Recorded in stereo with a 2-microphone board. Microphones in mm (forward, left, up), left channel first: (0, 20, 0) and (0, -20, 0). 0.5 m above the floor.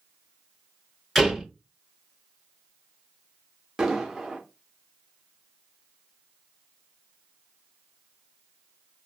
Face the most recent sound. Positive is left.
turn(degrees=-10)  # may be behind; listen again after turning